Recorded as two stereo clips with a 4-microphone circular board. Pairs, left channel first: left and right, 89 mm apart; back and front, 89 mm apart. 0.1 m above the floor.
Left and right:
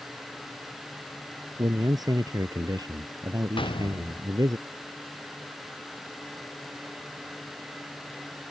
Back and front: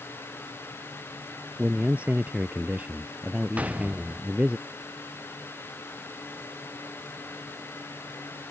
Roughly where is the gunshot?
Left.